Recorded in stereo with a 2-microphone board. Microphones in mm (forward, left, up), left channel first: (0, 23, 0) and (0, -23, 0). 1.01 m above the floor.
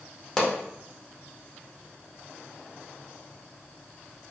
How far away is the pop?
About 0.7 m.